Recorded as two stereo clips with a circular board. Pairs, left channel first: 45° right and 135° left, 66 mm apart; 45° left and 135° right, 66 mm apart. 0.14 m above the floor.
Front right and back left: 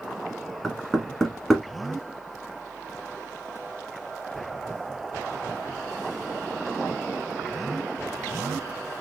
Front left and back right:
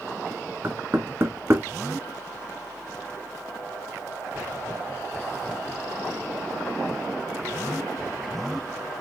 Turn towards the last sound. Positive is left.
turn(degrees=-130)